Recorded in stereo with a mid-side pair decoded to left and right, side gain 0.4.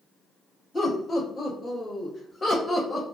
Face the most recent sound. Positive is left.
turn(degrees=25)